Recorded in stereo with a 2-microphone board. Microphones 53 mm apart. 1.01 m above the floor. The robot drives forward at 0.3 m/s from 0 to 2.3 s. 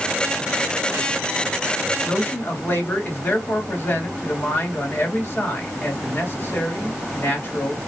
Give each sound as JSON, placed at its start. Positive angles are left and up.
{"t": 2.0, "sound": "a man speaking", "side_deg": 40, "distance_m": 2.0}